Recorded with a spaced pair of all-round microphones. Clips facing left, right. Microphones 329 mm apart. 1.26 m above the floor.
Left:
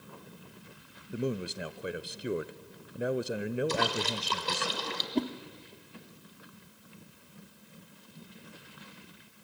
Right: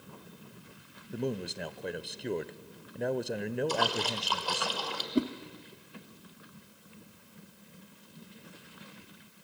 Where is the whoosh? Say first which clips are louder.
Right 2 dB; 10° right (ahead or behind), 0.9 m.